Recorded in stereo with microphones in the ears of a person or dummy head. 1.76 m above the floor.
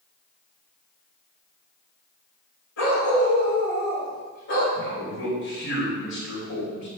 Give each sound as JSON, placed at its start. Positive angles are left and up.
{"t": 2.8, "sound": "a dog barking", "side_deg": 60, "distance_m": 2.5}
{"t": 4.8, "sound": "a man speaking", "side_deg": 80, "distance_m": 3.0}